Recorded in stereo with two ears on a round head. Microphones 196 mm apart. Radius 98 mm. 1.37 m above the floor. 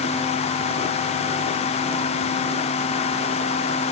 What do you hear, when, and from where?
Only background noise.